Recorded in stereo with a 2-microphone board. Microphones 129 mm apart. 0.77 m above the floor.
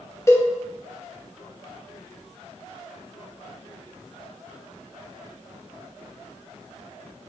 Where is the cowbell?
20° left (ahead or behind), 1.5 m.